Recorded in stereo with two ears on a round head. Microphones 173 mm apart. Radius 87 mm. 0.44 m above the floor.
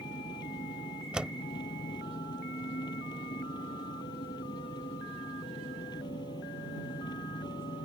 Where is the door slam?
5° right (ahead or behind).